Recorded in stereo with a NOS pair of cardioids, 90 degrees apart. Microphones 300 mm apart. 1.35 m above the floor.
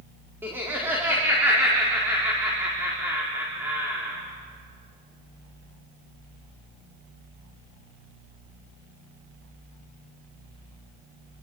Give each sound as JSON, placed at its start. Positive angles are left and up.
{"t": 0.4, "sound": "laughter", "azimuth_deg": -5, "distance_m": 4.5}